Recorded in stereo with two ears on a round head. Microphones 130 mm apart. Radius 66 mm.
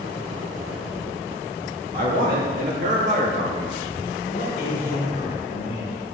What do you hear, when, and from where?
1.9 s a man speaking: 65° right (ahead or behind), 2.5 m; by 3.8 s 30° right (ahead or behind), 0.8 m
4.3 s a man speaking: 60° left (ahead or behind), 3 m